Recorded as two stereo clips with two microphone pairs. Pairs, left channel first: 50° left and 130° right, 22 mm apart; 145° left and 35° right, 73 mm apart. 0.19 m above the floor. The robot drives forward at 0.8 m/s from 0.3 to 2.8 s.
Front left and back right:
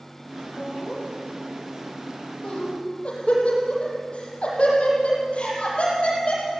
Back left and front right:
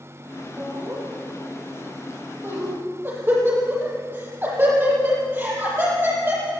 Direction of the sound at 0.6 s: 20° left.